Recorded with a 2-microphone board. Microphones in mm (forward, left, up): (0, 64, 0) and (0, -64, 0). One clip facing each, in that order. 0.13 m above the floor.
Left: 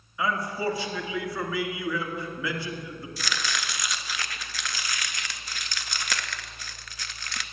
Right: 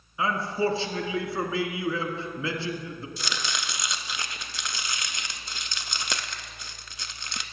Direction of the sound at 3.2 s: 25° right (ahead or behind).